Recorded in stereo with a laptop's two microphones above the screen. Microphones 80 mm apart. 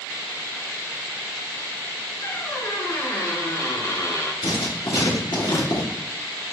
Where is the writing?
85° left, 1.2 m.